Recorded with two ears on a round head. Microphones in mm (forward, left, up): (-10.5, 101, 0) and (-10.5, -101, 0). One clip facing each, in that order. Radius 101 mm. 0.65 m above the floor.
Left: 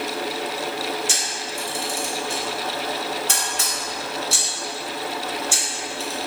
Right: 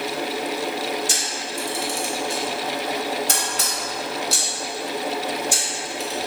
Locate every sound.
1.1 s a camera shutter: 35° right (ahead or behind), 0.6 m